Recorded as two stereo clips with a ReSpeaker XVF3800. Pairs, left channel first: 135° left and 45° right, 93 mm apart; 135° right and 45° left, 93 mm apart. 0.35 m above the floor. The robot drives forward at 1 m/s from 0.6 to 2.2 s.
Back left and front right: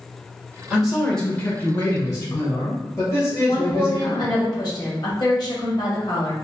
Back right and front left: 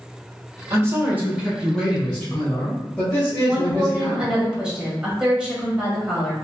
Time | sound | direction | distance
0.7 | a man speaking | 30° left | 1.3 m
3.5 | a woman speaking | 120° left | 1.6 m